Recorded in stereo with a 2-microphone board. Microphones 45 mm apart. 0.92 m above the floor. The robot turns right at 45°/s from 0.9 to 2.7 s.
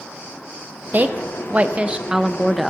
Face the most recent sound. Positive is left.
turn(degrees=-5)